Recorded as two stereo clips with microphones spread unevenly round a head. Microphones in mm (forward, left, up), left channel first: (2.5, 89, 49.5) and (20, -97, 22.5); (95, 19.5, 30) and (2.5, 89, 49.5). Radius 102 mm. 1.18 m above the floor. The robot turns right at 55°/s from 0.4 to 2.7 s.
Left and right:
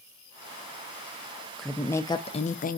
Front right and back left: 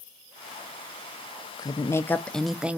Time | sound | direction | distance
1.6 | a woman speaking | 5° right | 0.6 m